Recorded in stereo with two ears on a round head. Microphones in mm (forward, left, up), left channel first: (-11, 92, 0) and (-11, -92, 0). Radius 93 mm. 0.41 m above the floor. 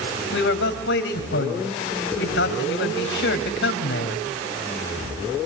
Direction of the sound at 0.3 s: 60° left (ahead or behind).